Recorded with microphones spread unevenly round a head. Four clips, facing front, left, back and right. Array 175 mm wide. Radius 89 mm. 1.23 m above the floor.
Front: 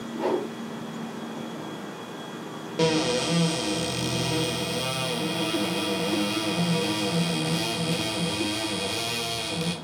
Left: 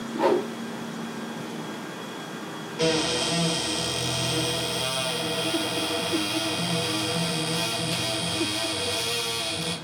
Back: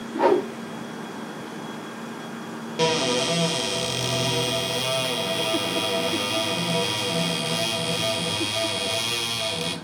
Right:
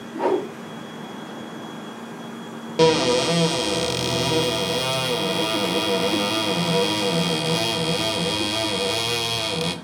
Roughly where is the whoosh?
Behind.